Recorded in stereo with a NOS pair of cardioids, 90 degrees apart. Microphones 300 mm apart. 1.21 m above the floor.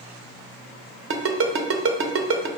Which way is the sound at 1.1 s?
45° right.